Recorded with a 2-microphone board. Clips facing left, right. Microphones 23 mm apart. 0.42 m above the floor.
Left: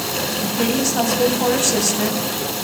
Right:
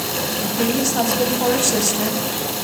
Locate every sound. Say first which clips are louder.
0.4 s a woman speaking: even; 5° left (ahead or behind), 3 m